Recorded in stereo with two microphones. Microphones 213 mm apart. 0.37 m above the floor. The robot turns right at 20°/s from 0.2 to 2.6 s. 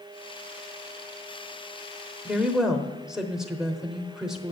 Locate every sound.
2.2 s a woman speaking: 5° right (ahead or behind), 1.0 m